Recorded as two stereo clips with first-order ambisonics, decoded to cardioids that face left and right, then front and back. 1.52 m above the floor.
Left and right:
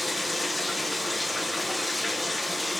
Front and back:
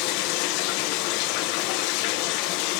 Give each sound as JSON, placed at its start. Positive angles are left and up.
{"t": 0.0, "sound": "running water", "azimuth_deg": 5, "distance_m": 1.0}